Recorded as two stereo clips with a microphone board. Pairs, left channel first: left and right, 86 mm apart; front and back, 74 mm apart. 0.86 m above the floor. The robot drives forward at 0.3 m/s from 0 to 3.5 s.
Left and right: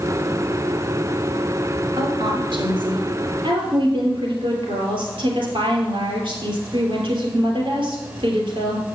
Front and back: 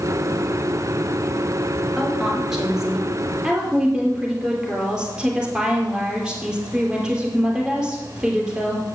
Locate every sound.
2.0 s a woman speaking: 95° right, 3 m; by 8.8 s 105° right, 3 m